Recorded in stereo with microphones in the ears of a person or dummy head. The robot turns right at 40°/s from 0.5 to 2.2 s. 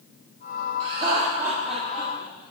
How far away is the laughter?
About 3.5 m.